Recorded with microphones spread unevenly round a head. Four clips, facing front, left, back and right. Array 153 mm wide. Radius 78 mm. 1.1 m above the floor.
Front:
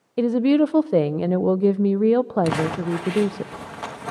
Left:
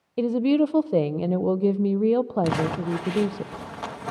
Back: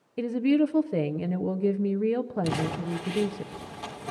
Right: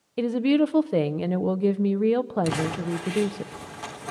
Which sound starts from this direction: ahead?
A woman speaking, at 0.2 s.